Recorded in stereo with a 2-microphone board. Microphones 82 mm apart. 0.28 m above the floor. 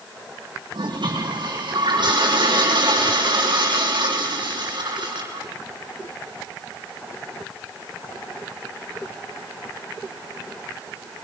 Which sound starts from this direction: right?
A toilet flushing, at 0.7 s.